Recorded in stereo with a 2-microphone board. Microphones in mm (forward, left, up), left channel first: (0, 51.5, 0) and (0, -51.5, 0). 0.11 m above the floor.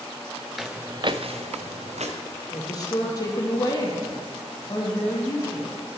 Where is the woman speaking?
35° left (ahead or behind), 3 m.